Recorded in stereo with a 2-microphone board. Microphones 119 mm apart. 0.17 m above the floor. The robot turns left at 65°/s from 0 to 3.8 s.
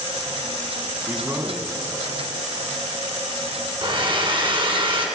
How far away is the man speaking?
About 1.3 m.